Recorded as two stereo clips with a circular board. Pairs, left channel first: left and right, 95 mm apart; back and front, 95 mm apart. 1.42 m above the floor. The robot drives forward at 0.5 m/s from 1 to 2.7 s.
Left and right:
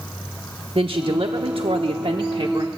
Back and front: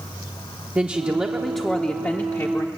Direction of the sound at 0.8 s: 70° right.